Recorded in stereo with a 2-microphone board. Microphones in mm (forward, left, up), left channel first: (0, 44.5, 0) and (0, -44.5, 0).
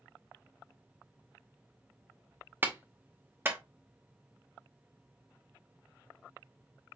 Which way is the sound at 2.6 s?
25° right (ahead or behind).